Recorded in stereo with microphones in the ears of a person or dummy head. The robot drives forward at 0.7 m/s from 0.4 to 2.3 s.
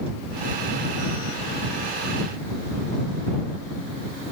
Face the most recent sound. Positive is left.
No sound to turn to.